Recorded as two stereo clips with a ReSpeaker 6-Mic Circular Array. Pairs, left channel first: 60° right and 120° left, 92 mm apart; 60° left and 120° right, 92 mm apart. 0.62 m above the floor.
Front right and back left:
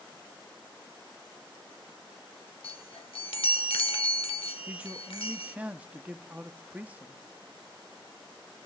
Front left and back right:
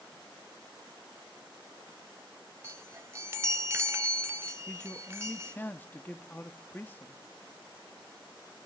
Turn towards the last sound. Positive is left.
turn(degrees=80)